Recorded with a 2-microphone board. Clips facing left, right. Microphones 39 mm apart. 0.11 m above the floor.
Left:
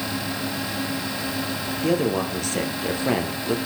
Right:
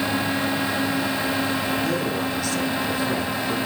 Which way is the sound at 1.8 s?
50° left (ahead or behind).